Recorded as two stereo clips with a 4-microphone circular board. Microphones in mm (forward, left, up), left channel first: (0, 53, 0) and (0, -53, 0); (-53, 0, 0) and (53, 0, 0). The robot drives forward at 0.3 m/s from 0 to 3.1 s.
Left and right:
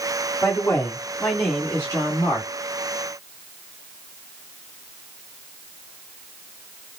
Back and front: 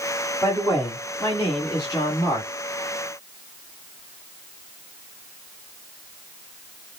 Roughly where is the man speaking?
Behind left.